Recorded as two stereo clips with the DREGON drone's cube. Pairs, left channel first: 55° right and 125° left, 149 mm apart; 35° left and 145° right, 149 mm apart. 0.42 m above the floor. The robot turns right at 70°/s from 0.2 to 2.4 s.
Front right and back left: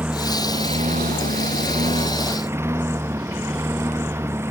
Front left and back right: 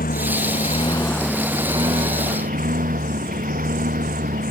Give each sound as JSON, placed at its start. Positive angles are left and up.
{"t": 0.0, "sound": "a lawn mower", "azimuth_deg": 45}